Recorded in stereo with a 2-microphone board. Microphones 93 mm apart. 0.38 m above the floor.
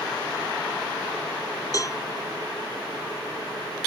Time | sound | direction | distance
1.7 | a cowbell | 40° left (ahead or behind) | ?